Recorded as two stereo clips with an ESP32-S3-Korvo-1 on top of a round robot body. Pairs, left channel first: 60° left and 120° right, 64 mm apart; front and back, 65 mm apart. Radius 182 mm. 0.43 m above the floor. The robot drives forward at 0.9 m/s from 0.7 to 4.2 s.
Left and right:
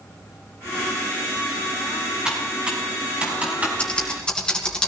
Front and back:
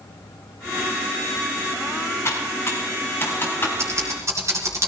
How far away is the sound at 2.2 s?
About 5.5 m.